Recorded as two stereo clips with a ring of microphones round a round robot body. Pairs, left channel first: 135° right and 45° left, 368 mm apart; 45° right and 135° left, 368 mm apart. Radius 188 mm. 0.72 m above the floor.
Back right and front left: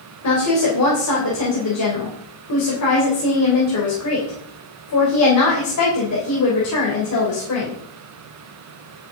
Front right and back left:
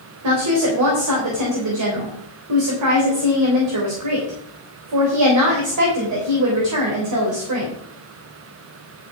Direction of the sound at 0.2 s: Straight behind.